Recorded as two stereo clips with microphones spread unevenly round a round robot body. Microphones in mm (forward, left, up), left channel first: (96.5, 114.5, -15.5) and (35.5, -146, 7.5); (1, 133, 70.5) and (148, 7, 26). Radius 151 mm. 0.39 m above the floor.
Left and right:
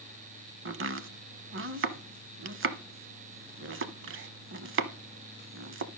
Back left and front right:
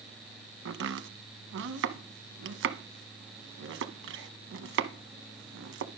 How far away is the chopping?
About 0.7 m.